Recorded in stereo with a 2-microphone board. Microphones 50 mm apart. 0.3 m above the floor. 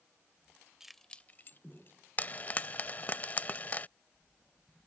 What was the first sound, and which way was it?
Keys jangling, 10° right (ahead or behind).